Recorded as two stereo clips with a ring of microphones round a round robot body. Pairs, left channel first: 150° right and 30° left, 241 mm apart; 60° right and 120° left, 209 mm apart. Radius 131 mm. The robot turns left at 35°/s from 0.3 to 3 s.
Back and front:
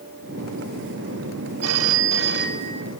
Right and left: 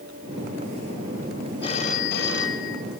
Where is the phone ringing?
10° left, 2.5 m; by 2.8 s 30° right, 2.5 m.